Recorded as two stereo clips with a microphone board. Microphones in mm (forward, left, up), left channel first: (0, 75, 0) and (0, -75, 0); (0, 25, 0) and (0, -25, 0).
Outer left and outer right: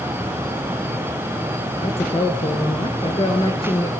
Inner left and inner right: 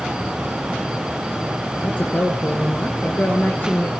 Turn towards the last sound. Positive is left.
turn(degrees=40)  # may be behind; listen again after turning